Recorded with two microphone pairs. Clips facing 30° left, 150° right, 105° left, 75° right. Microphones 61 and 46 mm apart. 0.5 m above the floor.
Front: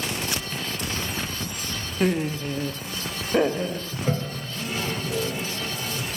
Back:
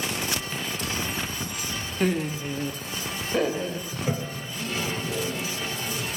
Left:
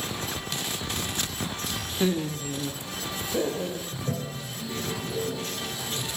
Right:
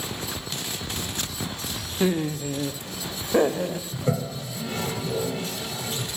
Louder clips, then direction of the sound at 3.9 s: Front 3 dB, right 5 dB; 55° right.